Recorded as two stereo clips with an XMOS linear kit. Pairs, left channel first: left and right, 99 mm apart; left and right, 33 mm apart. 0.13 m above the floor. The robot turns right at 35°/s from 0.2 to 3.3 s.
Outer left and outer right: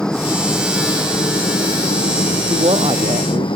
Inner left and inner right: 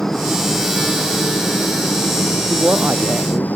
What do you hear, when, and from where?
0.0 s a helicopter: 10° left; by 3.6 s 115° left
2.5 s a woman speaking: 80° right; by 3.5 s 65° right (ahead or behind)